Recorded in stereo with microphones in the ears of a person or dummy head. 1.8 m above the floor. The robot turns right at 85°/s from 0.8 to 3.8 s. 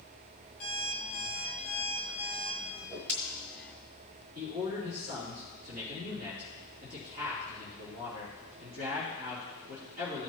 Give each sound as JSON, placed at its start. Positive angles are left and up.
{"t": 0.6, "sound": "an alarm clock", "azimuth_deg": 65, "distance_m": 3.5}
{"t": 2.8, "sound": "a whoosh", "side_deg": -20, "distance_m": 1.6}
{"t": 4.3, "sound": "a man speaking", "side_deg": -55, "distance_m": 3.0}